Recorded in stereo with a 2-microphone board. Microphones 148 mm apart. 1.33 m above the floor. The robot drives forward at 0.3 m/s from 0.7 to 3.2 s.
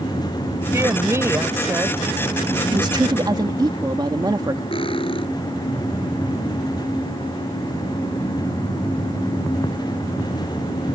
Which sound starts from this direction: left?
Cutlery clinking, at 4.7 s.